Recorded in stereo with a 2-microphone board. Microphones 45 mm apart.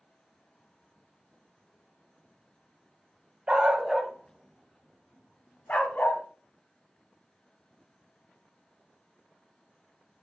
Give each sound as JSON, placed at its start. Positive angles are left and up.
{"t": 3.5, "sound": "a dog barking", "side_deg": -25, "distance_m": 1.6}